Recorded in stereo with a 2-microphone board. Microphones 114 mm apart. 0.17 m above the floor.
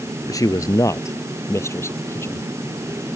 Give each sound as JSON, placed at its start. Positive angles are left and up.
{"t": 0.3, "sound": "a man speaking", "side_deg": 30}